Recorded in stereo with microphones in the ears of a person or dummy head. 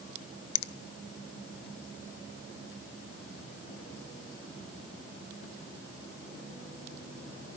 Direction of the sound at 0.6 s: 55° left (ahead or behind).